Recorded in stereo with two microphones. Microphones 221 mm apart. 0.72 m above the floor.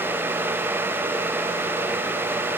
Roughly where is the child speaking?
I don't hear a child speaking.